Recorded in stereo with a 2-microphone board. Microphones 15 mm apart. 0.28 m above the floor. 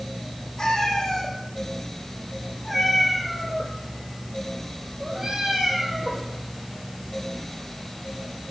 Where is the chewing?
No chewing in this recording.